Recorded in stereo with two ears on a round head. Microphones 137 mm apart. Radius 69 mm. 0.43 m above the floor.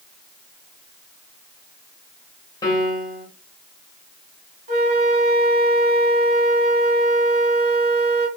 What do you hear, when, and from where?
2.6 s a piano: 25° left (ahead or behind), 1.2 m
4.7 s a flute: 50° right (ahead or behind), 1.8 m